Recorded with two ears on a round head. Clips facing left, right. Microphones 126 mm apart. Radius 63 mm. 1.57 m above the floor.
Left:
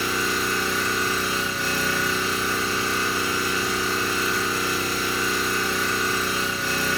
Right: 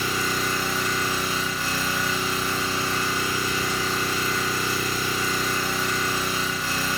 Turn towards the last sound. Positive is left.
turn(degrees=65)  # may be behind; listen again after turning